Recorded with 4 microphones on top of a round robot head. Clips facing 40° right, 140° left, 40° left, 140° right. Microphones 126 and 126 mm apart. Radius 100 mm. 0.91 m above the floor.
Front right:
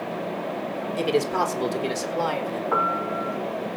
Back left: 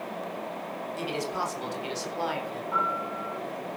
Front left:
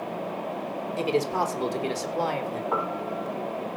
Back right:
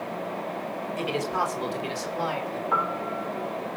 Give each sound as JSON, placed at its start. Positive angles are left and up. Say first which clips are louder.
{"t": 1.0, "sound": "a man speaking", "louder": "front right 10 dB, front left 3 dB", "azimuth_deg": -15, "distance_m": 3.5}
{"t": 2.7, "sound": "a piano", "louder": "front right 4 dB, back right 2 dB", "azimuth_deg": -25, "distance_m": 3.0}